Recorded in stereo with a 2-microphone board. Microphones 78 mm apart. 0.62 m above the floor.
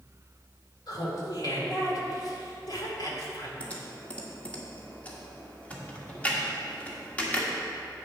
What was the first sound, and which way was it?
Laughter, 55° left (ahead or behind).